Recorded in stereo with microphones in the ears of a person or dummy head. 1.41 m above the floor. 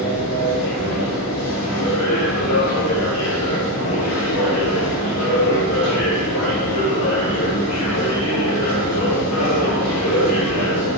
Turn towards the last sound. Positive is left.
turn(degrees=85)